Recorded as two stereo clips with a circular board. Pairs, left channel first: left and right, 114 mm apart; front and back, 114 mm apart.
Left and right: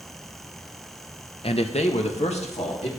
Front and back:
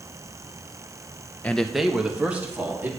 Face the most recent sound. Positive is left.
turn(degrees=110)